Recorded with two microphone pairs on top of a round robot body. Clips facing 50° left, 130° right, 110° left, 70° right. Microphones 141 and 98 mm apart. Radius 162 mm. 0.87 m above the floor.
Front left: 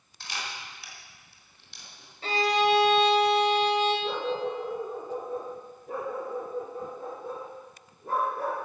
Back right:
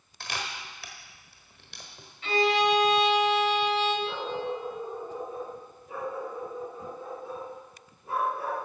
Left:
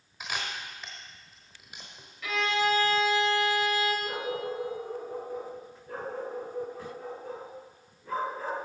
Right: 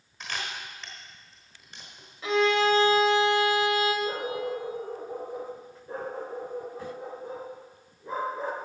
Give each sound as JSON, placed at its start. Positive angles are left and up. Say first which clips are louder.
{"t": 0.2, "sound": "a camera shutter", "louder": "back right 2 dB, even", "azimuth_deg": -165, "distance_m": 1.1}
{"t": 2.2, "sound": "a violin", "louder": "even, right 5 dB", "azimuth_deg": -5, "distance_m": 1.9}
{"t": 4.0, "sound": "a dog barking", "louder": "front left 2 dB, right 2 dB", "azimuth_deg": 0, "distance_m": 4.5}